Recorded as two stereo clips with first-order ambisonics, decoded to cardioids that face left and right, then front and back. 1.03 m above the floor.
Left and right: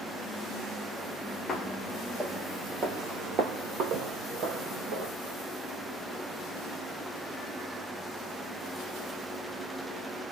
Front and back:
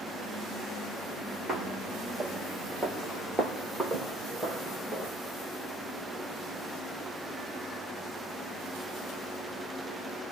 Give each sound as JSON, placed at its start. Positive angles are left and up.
{"t": 1.5, "sound": "footsteps", "azimuth_deg": 145, "distance_m": 1.1}